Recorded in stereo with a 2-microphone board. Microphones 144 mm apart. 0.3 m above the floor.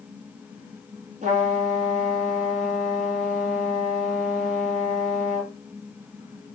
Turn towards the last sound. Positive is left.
turn(degrees=-55)  # may be behind; listen again after turning